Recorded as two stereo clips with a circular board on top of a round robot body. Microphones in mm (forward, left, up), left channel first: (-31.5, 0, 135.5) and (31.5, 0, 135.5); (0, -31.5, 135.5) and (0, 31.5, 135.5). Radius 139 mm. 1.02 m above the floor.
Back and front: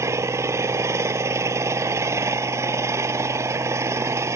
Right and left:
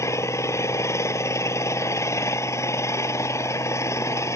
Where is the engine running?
45° right.